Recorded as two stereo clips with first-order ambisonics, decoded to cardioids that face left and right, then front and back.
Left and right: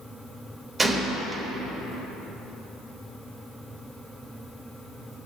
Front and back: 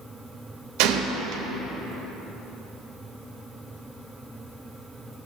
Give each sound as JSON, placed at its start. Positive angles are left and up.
{"t": 0.8, "sound": "a gunshot", "azimuth_deg": -165, "distance_m": 1.2}